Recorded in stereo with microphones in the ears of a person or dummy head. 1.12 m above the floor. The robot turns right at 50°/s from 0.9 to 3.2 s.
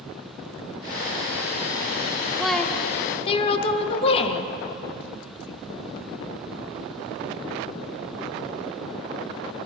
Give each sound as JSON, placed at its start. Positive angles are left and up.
{"t": 2.4, "sound": "a woman speaking", "azimuth_deg": -5, "distance_m": 1.0}